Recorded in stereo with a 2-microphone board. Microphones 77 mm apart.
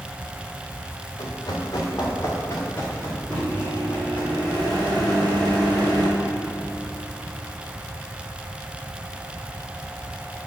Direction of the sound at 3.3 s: 65° right (ahead or behind).